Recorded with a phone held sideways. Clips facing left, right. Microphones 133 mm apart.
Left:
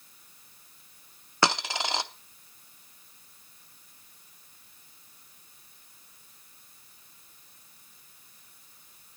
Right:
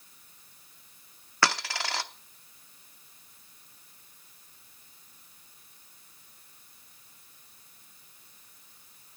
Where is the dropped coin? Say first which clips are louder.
Left 2 dB; 20° left (ahead or behind), 0.7 m.